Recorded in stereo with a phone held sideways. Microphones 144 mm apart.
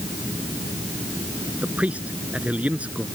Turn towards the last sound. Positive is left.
turn(degrees=-10)  # may be behind; listen again after turning